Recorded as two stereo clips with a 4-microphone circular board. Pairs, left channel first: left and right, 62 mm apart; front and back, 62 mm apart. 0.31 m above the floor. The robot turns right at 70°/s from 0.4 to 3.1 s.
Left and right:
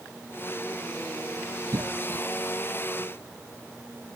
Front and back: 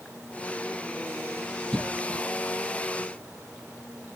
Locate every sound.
1.7 s a cough: 85° right; by 2.2 s 45° right